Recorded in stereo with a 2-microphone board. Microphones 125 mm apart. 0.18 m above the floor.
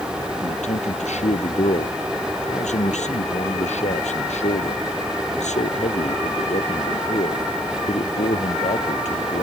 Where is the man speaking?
65° left (ahead or behind).